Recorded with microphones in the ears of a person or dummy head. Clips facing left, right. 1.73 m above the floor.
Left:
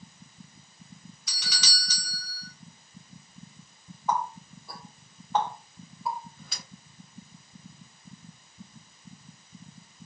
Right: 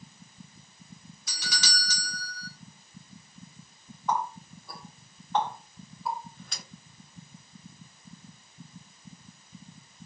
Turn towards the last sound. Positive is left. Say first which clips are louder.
# left 1 dB
turn(degrees=5)  # may be behind; listen again after turning